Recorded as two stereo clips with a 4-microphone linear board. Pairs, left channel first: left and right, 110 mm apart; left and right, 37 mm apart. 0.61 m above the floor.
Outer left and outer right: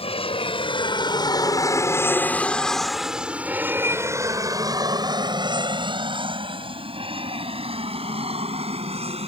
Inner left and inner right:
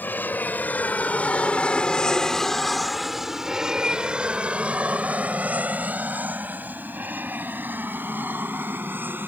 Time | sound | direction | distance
0.0 | an aircraft | 55° left (ahead or behind) | ?